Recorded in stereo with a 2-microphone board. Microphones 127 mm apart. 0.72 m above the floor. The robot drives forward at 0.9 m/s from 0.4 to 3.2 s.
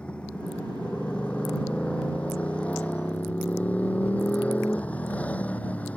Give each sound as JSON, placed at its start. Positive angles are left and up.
{"t": 0.0, "sound": "a motorcycle", "side_deg": 10}